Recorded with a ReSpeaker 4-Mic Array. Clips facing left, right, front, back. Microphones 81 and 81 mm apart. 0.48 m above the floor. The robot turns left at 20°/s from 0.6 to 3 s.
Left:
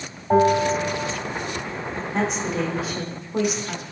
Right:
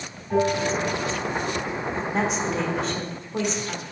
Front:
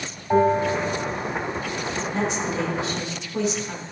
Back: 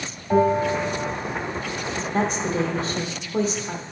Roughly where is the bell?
Left.